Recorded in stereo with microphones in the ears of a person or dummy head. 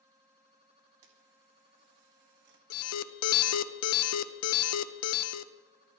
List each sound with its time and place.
1.0 s a camera shutter: 55° right (ahead or behind), 2 m
2.7 s an alarm: 75° left (ahead or behind), 0.7 m